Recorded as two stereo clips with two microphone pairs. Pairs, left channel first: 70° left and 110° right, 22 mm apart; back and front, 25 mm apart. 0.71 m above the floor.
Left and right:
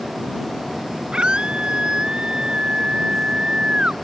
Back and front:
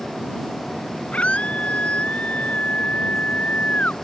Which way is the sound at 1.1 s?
150° right.